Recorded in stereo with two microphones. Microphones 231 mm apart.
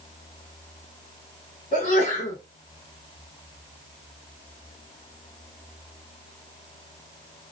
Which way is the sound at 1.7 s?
40° left (ahead or behind).